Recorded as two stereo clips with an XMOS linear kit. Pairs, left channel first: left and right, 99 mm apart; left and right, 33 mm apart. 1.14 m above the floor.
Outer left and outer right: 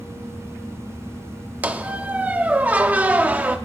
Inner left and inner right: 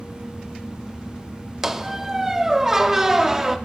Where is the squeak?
15° right (ahead or behind), 0.7 m.